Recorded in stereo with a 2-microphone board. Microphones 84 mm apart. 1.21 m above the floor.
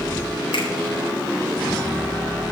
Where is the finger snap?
85° left, 4 m.